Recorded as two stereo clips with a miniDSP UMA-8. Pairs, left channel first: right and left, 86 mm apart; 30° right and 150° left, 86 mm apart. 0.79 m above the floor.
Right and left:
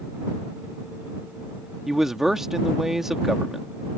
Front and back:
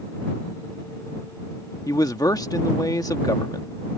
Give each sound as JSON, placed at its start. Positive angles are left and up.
{"t": 1.9, "sound": "a man speaking", "azimuth_deg": 5}